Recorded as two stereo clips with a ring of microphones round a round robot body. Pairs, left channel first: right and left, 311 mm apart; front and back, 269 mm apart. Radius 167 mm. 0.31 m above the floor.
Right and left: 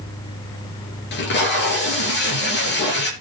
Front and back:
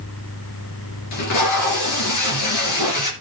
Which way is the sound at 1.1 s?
35° right.